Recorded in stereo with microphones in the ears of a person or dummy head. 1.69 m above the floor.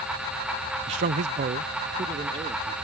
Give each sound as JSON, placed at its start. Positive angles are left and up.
{"t": 0.9, "sound": "a man speaking", "side_deg": -30}